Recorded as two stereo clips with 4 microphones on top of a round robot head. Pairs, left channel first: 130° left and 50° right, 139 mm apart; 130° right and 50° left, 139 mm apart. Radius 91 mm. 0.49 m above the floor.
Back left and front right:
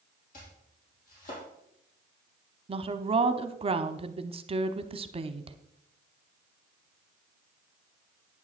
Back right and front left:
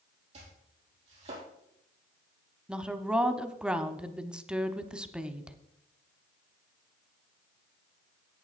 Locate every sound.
0.3 s chopping: 100° left, 4.5 m
2.7 s a woman speaking: 30° right, 0.9 m